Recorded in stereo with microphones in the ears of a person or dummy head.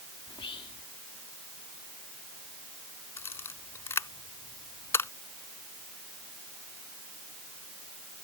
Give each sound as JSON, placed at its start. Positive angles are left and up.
{"t": 0.3, "sound": "whispering", "side_deg": 20}
{"t": 3.2, "sound": "a camera shutter", "side_deg": 10}